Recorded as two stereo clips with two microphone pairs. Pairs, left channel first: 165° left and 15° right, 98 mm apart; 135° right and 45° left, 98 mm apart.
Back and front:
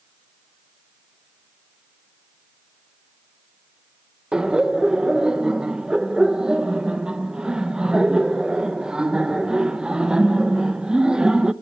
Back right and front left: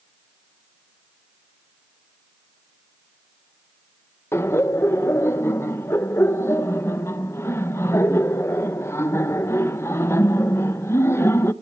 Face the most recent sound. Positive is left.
turn(degrees=-90)